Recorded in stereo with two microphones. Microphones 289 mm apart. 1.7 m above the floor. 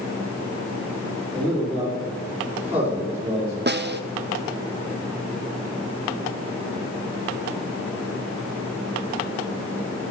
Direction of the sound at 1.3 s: 5° left (ahead or behind).